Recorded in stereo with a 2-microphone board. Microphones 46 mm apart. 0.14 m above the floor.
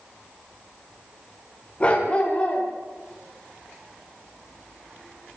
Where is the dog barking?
25° left (ahead or behind), 8 m.